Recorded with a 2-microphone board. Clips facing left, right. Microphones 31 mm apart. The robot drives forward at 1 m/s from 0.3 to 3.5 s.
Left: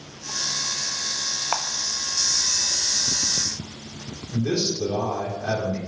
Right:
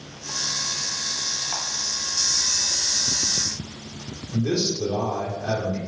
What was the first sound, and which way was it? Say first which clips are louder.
A camera shutter: left 5 dB; 60° left (ahead or behind).